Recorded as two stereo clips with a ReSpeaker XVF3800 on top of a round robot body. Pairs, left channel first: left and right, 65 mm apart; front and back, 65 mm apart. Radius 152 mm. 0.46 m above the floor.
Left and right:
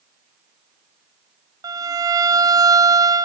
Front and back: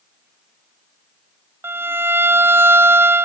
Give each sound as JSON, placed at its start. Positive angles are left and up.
{"t": 1.6, "sound": "a violin", "azimuth_deg": -125, "distance_m": 1.0}